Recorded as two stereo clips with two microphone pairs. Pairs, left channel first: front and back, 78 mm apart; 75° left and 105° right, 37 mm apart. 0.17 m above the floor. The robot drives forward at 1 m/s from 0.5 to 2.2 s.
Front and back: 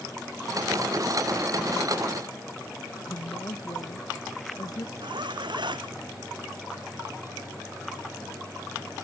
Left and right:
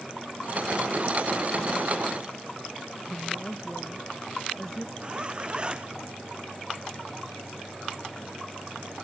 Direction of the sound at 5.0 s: 170° right.